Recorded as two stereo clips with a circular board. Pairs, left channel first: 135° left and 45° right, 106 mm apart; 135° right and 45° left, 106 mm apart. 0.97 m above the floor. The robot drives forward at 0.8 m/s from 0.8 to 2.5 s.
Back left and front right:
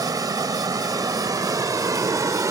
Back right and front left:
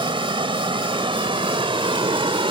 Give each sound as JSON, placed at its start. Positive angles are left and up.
{"t": 0.0, "sound": "running water", "azimuth_deg": 10}